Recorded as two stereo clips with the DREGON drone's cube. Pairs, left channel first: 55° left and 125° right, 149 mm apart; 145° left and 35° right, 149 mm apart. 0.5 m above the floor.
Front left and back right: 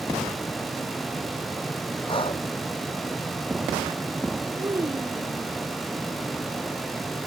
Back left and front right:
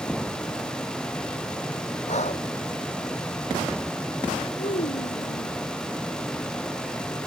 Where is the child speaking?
170° left.